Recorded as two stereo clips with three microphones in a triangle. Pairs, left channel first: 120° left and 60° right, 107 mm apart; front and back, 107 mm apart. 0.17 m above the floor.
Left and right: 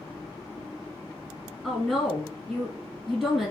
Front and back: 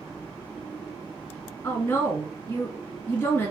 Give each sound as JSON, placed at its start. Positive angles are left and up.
{"t": 1.6, "sound": "a woman speaking", "azimuth_deg": 35, "distance_m": 1.4}